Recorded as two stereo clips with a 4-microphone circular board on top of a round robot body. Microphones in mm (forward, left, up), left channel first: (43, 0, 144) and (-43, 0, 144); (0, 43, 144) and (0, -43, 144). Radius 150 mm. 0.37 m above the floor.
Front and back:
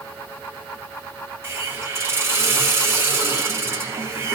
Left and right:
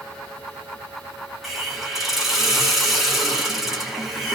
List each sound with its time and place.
1.4 s a hiss: 175° right, 1.3 m